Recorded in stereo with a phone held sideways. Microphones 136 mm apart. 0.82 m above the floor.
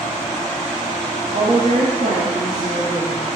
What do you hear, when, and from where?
1.3 s a woman speaking: 60° right (ahead or behind), 1.5 m; by 3.4 s 55° right (ahead or behind), 2 m